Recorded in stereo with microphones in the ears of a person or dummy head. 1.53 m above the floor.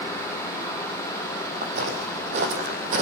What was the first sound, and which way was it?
Footsteps, 50° right (ahead or behind).